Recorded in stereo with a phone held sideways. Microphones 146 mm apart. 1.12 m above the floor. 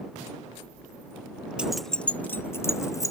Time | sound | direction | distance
1.6 | keys jangling | 5° right (ahead or behind) | ?